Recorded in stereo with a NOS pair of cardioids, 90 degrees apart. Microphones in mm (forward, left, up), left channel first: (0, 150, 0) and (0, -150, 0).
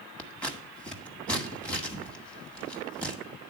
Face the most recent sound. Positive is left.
turn(degrees=5)